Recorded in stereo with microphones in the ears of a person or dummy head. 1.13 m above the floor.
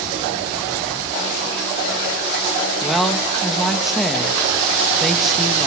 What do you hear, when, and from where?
2.8 s a woman speaking: centre (ahead or behind), 1.6 m